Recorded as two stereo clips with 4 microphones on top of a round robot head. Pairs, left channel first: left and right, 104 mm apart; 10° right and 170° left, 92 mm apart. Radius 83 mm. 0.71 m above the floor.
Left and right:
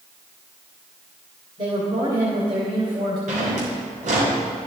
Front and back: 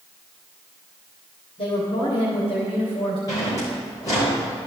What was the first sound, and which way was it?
A woman speaking, 45° right.